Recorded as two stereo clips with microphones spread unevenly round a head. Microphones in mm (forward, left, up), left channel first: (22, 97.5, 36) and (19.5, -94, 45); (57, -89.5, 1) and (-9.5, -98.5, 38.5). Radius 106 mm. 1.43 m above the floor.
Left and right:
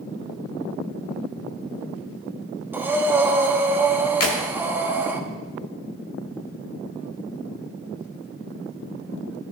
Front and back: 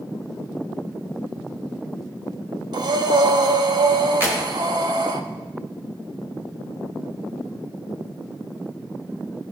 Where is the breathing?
170° right, 0.9 m.